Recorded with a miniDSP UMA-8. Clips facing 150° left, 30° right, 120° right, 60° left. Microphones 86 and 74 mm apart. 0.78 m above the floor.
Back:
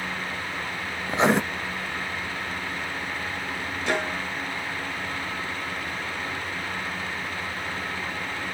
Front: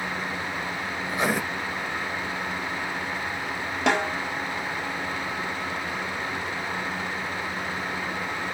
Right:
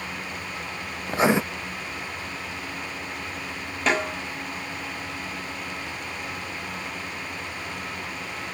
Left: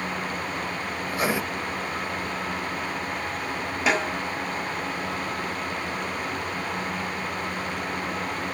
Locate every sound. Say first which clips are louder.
1.1 s writing: back 5 dB, right 6 dB; 165° right, 0.6 m
3.9 s a snare drum: front 4 dB, even; 25° right, 6 m